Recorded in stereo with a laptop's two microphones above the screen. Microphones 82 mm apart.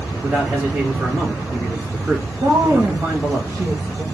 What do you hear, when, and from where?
0.2 s a man speaking: 20° right (ahead or behind), 1.9 m
2.4 s a woman speaking: 35° right (ahead or behind), 0.7 m